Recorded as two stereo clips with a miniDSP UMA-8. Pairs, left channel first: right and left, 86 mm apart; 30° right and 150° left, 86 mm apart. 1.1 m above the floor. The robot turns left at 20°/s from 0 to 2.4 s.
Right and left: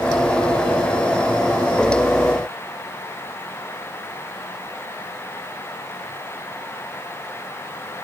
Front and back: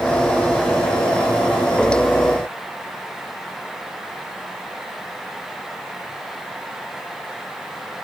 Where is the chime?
No chime in this recording.